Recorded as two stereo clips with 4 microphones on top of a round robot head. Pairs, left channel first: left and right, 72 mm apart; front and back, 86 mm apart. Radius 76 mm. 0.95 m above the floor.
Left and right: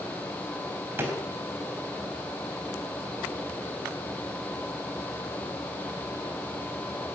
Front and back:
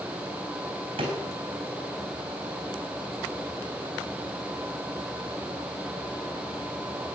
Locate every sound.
1.0 s a drawer: 150° right, 4 m